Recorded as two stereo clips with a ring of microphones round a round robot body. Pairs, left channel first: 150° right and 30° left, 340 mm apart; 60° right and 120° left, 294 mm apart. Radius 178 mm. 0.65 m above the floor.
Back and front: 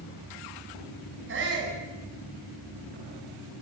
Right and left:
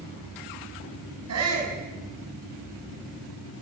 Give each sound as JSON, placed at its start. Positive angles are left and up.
{"t": 1.3, "sound": "a shout", "azimuth_deg": 85, "distance_m": 7.0}